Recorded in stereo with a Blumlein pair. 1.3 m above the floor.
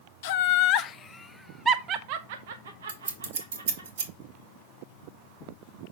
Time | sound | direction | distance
0.2 | laughter | 50° left | 0.9 m
2.9 | scissors | 65° right | 1.6 m